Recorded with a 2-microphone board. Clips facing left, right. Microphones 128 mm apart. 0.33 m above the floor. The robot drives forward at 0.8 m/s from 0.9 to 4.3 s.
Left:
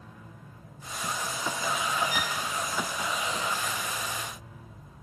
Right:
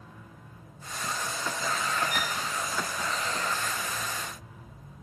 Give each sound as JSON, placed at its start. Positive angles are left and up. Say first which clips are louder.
{"t": 2.1, "sound": "a violin", "louder": "even", "side_deg": 0, "distance_m": 6.0}